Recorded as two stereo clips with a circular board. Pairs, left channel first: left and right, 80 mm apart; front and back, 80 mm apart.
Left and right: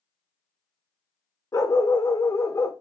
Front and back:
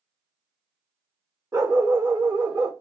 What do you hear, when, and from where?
1.5 s a dog barking: 140° left, 1.0 m